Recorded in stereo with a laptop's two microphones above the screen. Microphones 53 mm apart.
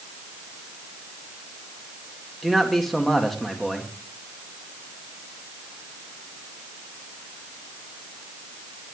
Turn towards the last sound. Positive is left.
turn(degrees=5)  # may be behind; listen again after turning